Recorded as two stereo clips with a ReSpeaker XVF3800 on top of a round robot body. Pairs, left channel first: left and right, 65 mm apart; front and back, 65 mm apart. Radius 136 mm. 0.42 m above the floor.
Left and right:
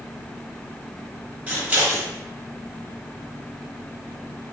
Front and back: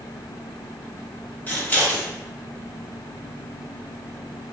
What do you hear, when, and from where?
1.5 s scissors: 40° right, 1.6 m